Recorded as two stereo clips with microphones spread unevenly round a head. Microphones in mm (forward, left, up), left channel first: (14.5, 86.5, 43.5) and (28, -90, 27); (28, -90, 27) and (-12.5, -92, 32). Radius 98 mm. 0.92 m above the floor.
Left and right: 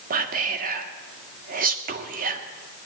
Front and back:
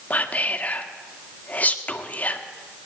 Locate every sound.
0.1 s whispering: 45° right, 1.5 m